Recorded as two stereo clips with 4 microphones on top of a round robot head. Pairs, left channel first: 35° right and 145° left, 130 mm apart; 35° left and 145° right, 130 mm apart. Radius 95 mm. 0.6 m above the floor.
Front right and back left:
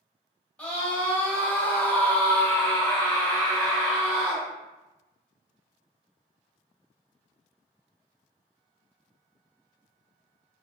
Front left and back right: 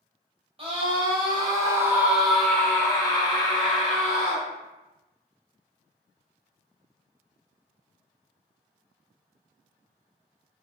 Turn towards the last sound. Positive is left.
turn(degrees=45)